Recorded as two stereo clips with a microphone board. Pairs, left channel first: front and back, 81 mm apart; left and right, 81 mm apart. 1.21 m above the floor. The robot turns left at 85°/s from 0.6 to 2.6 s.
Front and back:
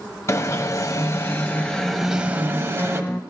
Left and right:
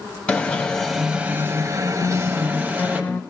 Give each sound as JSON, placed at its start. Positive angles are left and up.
{"t": 0.3, "sound": "an alarm", "azimuth_deg": 20, "distance_m": 1.3}
{"t": 2.0, "sound": "a guitar", "azimuth_deg": 95, "distance_m": 0.5}